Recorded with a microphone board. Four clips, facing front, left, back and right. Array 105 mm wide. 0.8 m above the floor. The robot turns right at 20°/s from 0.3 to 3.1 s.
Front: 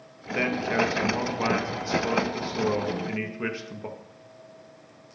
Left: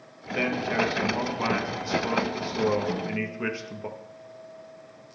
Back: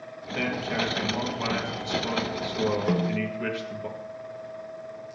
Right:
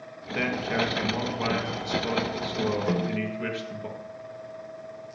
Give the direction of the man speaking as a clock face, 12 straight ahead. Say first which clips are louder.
Left 1 dB, front 3 dB; 12 o'clock.